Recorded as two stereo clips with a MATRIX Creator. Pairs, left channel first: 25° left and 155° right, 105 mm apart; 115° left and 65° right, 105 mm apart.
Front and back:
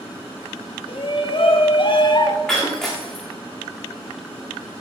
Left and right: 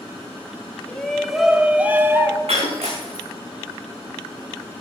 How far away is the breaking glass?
About 5 m.